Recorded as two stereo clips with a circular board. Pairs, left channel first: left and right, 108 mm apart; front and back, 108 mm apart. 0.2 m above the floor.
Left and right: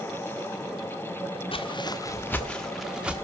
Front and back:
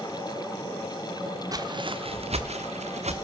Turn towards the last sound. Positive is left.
turn(degrees=-170)